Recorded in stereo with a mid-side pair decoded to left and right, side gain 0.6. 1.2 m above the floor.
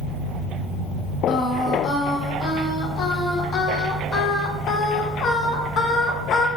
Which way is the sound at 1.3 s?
45° left.